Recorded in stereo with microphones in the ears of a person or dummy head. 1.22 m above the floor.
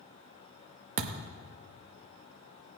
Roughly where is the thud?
Right.